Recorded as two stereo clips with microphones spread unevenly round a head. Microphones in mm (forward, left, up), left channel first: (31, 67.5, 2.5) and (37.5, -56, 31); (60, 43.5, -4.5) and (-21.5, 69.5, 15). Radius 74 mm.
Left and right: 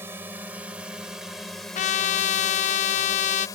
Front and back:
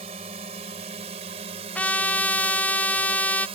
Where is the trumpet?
60° left.